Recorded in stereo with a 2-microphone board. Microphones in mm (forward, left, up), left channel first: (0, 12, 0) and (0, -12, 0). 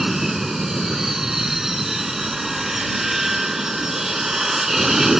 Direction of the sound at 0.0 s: 15° right (ahead or behind).